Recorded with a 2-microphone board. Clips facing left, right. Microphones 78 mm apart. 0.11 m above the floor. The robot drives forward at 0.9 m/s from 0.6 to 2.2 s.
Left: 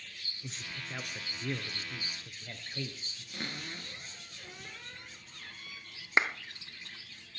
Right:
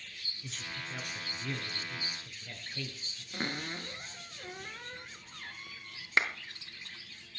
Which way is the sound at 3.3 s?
40° right (ahead or behind).